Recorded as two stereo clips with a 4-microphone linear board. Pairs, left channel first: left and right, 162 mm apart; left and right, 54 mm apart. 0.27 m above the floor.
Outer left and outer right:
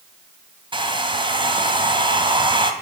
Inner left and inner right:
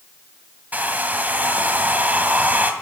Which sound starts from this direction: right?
A hair dryer, at 0.7 s.